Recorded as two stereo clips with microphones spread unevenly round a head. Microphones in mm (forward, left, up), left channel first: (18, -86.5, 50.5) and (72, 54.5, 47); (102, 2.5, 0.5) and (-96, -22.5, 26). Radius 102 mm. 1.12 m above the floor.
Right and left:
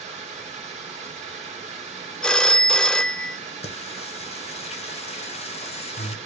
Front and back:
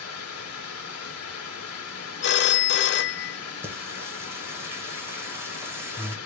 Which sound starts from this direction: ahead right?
A phone ringing, at 2.2 s.